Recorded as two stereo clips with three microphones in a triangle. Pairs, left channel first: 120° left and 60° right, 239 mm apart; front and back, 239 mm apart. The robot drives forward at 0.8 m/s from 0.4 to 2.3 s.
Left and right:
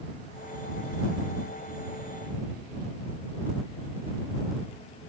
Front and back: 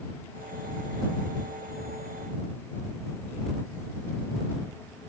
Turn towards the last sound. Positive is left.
No sound to turn to.